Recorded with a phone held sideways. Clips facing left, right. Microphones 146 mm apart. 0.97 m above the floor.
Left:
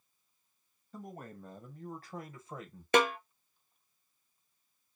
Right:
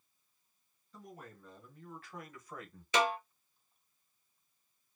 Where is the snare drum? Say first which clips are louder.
Left 4 dB; 60° left (ahead or behind), 0.5 m.